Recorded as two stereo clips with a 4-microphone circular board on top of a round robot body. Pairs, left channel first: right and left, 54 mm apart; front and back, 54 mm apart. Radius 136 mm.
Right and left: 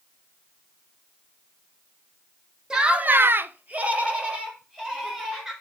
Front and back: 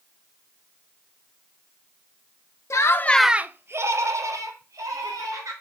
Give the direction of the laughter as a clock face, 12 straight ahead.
11 o'clock.